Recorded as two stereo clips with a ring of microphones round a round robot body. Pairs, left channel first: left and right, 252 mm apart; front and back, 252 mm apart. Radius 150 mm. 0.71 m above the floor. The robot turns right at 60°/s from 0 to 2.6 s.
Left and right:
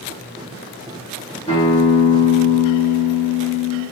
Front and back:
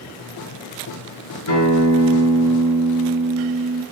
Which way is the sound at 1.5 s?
5° left.